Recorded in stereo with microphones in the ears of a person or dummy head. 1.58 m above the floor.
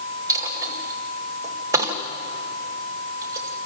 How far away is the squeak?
No squeak in this recording.